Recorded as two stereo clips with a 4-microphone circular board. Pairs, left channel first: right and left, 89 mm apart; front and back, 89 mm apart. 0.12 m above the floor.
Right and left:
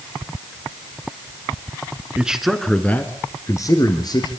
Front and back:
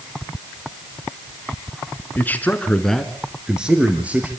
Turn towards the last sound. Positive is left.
turn(degrees=-110)